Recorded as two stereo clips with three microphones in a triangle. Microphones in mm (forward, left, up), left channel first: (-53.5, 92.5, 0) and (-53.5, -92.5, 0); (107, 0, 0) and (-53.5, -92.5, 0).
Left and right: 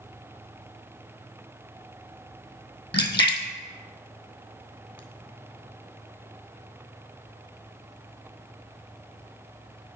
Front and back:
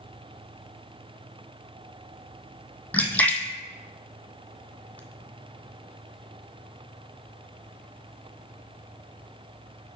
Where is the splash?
110° left, 0.6 m.